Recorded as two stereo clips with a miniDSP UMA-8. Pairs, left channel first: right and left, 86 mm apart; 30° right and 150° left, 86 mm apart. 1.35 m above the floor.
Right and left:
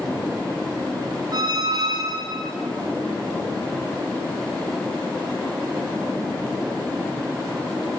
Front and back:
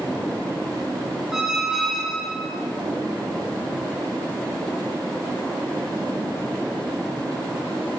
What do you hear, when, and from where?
1.3 s a squeak: 65° left, 0.7 m